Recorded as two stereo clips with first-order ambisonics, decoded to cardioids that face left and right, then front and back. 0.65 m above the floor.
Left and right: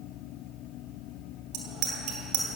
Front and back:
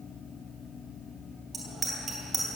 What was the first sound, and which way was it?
A bicycle bell, 105° right.